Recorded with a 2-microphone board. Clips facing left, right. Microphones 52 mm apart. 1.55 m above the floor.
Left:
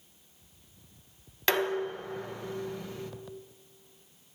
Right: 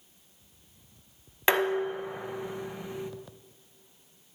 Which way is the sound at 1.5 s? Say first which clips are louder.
Right 3 dB; 20° right (ahead or behind).